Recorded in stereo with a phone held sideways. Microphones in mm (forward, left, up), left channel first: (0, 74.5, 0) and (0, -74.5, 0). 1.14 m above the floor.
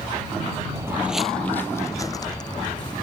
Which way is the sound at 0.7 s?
25° right (ahead or behind).